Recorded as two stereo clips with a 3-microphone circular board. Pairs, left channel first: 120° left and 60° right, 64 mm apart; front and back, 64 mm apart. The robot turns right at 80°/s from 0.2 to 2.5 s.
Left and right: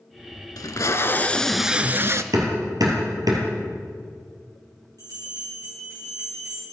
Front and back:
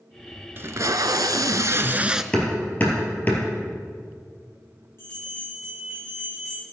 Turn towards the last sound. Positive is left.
turn(degrees=-50)